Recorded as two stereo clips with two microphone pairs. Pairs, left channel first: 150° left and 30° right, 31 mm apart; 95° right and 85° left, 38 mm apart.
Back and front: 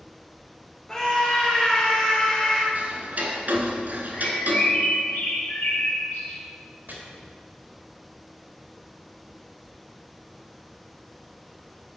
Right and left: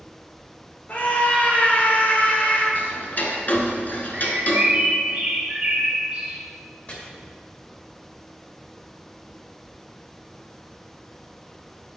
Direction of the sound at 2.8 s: 60° right.